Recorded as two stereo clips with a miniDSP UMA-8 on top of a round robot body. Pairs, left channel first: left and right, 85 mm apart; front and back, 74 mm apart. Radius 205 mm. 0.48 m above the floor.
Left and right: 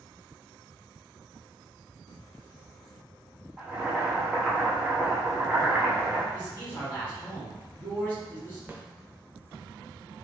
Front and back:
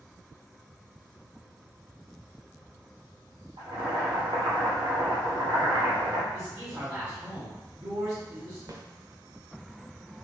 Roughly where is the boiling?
Behind.